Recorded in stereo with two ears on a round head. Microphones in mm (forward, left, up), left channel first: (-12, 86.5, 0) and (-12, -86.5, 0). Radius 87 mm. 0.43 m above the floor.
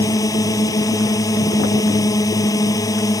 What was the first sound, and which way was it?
A drone, 20° left (ahead or behind).